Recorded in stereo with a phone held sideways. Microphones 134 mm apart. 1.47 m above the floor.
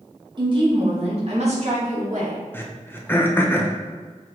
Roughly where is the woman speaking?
Right.